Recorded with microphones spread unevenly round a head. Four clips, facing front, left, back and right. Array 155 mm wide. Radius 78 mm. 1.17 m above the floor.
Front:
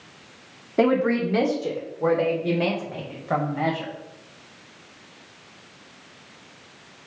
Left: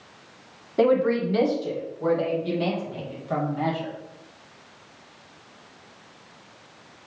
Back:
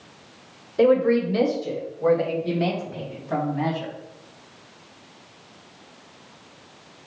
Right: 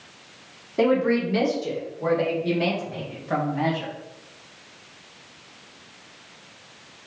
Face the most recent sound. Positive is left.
turn(degrees=-5)